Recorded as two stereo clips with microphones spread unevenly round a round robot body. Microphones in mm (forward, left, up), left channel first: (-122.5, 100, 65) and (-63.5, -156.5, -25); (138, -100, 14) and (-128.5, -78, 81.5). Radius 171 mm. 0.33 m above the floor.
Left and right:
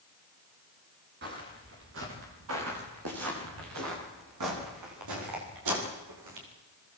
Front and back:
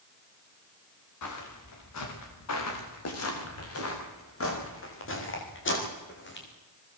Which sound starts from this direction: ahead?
Footsteps, at 1.2 s.